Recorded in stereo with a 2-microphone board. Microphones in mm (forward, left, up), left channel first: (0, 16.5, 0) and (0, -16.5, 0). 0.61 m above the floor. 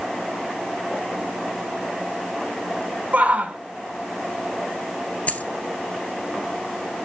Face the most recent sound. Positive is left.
turn(degrees=50)  # may be behind; listen again after turning